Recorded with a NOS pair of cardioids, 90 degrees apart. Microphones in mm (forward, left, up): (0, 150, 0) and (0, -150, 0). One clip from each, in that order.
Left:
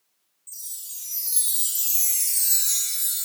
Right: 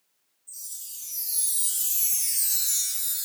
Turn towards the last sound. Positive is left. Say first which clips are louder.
# left 2 dB
turn(degrees=55)